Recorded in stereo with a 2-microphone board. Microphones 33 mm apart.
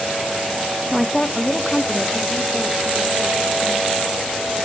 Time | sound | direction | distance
0.9 | a woman speaking | 5° right (ahead or behind) | 0.8 m